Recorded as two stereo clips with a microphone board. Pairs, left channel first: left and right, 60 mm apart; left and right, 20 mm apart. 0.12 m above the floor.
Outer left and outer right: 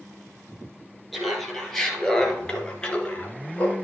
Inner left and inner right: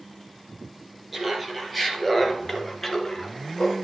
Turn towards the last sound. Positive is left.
turn(degrees=25)  # may be behind; listen again after turning